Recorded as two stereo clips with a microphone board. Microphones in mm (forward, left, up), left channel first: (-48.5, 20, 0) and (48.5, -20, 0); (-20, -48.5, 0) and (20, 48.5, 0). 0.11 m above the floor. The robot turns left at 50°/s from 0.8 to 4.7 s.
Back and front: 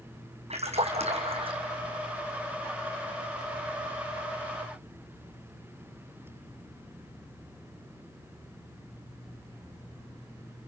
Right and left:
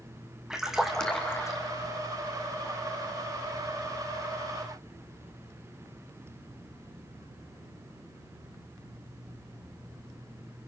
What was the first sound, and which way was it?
A splash, 20° right.